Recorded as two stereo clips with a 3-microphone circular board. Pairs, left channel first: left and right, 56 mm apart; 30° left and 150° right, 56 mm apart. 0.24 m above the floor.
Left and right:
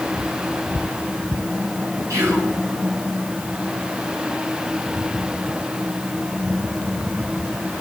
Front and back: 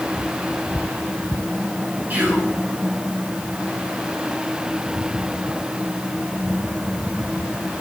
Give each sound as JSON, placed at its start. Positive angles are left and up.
{"t": 2.1, "sound": "whispering", "azimuth_deg": -95, "distance_m": 2.5}